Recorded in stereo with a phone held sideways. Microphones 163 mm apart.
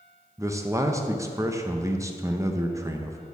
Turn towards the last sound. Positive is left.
turn(degrees=-20)  # may be behind; listen again after turning